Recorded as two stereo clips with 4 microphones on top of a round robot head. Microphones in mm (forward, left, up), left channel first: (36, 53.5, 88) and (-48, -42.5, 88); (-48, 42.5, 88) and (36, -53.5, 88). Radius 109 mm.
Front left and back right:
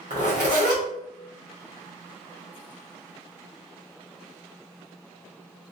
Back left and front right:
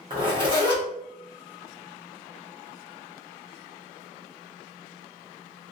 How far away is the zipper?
About 1.1 m.